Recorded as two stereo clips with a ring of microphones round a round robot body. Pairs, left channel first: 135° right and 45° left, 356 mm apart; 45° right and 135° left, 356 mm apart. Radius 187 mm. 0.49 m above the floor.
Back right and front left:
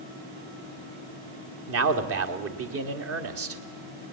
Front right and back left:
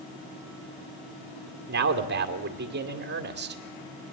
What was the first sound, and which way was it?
A man speaking, 85° left.